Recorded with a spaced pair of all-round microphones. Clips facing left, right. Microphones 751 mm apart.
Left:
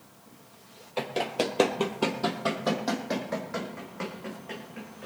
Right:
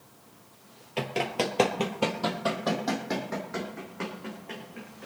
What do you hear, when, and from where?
1.0 s running footsteps: 45° right (ahead or behind), 1.6 m; by 5.1 s 20° left (ahead or behind), 5 m